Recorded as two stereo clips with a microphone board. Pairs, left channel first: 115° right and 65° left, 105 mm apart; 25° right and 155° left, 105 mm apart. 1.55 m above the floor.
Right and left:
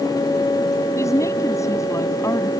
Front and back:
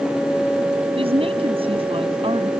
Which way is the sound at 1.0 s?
170° right.